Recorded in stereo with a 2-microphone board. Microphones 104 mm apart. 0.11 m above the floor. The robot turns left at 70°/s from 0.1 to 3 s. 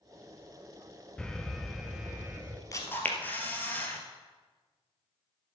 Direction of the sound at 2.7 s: 35° left (ahead or behind).